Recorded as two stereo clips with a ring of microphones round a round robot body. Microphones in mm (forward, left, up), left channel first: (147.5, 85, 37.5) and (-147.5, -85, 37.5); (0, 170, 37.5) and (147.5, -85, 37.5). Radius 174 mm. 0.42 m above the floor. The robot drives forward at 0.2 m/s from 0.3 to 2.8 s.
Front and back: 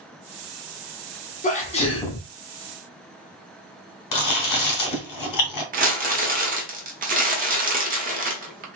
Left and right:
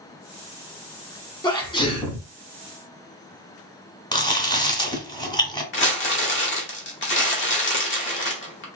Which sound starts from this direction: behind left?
Crumpling, at 5.7 s.